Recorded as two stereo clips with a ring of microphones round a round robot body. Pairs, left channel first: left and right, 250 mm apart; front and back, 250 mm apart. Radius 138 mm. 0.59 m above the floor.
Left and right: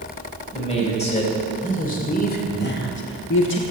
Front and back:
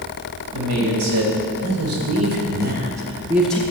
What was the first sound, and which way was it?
A man speaking, 155° left.